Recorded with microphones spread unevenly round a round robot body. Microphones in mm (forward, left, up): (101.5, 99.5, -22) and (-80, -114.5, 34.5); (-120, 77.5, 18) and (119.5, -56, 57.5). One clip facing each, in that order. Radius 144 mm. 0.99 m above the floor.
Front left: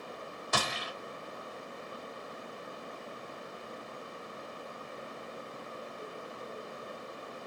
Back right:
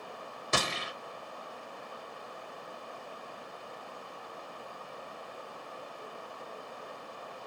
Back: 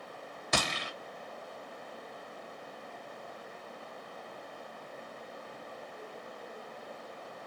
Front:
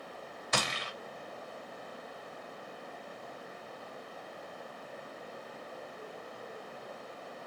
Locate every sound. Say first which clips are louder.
0.5 s a gunshot: back right 2 dB, back 2 dB; 165° left, 1.0 m